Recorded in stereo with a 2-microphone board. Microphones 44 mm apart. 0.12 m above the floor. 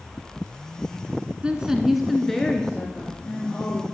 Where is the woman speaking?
25° right (ahead or behind), 1.1 m; by 3.8 s 25° left (ahead or behind), 2.5 m.